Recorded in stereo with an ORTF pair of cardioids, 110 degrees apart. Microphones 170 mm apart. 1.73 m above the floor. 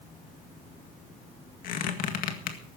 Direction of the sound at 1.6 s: 65° left.